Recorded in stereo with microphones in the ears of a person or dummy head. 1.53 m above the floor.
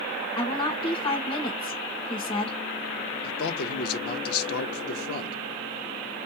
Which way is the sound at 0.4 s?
25° left (ahead or behind).